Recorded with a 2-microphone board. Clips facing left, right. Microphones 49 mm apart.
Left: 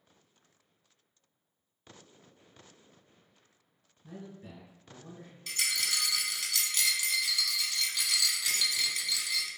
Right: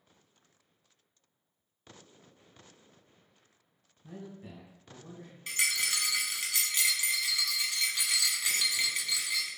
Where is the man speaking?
20° right (ahead or behind), 1.6 m; by 5.4 s centre (ahead or behind), 1.6 m.